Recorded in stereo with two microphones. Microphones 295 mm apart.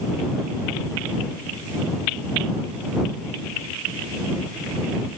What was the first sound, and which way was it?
Only background noise.